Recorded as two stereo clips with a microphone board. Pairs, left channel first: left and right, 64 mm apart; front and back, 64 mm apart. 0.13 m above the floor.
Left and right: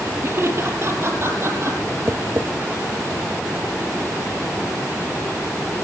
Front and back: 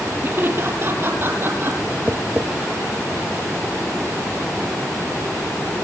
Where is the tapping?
130° right, 1.4 m.